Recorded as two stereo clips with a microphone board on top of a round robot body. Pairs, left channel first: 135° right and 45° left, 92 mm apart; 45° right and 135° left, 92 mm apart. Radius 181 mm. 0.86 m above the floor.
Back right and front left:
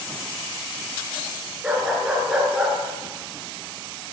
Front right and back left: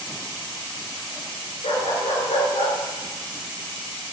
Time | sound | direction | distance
1.6 | a dog barking | 35° right | 5.5 m